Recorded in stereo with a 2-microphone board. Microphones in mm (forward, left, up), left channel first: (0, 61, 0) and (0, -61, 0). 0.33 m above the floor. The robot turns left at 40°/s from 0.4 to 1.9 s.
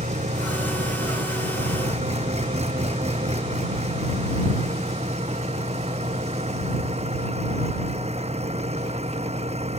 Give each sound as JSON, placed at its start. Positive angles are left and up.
{"t": 0.0, "sound": "an engine running", "azimuth_deg": -65}